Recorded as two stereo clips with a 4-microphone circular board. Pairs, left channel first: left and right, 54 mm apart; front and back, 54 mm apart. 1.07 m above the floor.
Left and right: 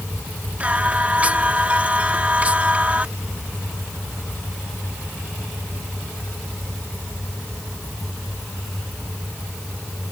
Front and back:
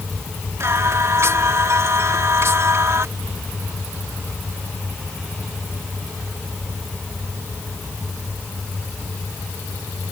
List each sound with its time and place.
0.6 s singing: 150° right